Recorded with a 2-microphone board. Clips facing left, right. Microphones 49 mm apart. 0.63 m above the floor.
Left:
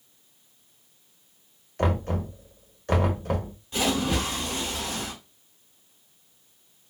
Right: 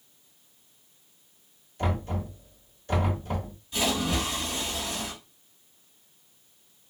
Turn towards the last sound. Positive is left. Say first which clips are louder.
# left 2 dB
turn(degrees=35)  # may be behind; listen again after turning